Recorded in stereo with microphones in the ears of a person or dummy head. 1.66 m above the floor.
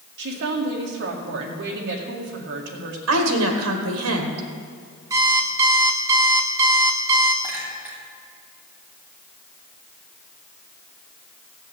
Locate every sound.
0.2 s a woman speaking: 55° right (ahead or behind), 1.9 m
3.1 s a woman speaking: 80° right, 1.8 m
5.1 s an alarm clock: 15° right (ahead or behind), 1.1 m
7.4 s a clink: 5° right (ahead or behind), 3.5 m